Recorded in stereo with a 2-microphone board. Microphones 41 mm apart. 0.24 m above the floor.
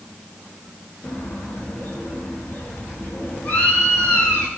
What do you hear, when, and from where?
1.0 s a bird: 40° left (ahead or behind), 4 m